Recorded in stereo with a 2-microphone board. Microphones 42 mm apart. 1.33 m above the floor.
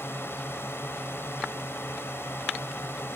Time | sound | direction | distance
0.0 | a drone | 75° left (ahead or behind) | ?